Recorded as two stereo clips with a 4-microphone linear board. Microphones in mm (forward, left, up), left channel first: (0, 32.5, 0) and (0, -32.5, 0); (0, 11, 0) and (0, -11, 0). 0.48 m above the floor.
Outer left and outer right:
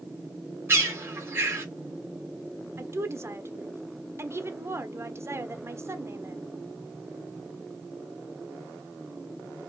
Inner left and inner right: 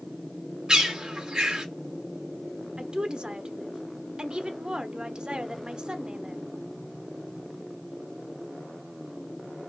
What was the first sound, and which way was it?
A bird, 35° right (ahead or behind).